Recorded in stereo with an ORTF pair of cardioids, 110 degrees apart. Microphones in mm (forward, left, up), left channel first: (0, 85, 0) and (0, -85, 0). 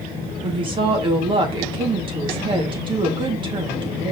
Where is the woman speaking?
30° right, 2.5 m.